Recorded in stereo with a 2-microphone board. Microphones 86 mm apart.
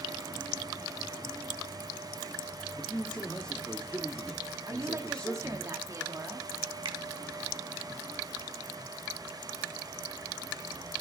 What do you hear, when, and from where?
2.8 s a man speaking: 5° left (ahead or behind), 0.8 m
4.7 s a woman speaking: 40° right (ahead or behind), 1.1 m
6.8 s a finger snap: 65° right (ahead or behind), 1.0 m